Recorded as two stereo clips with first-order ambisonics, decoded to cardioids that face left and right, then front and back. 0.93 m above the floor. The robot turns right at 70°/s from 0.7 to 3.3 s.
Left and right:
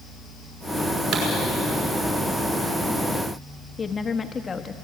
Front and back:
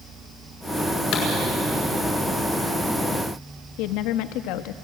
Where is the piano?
I don't hear a piano.